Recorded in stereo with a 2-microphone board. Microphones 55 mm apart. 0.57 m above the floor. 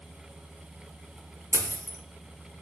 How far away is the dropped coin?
About 0.6 m.